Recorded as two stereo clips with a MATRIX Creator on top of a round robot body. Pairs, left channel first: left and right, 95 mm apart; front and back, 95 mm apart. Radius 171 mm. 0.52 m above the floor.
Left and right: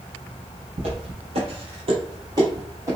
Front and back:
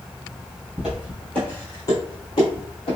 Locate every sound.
0.8 s footsteps: 95° right, 1.1 m; by 3.0 s 30° right, 1.3 m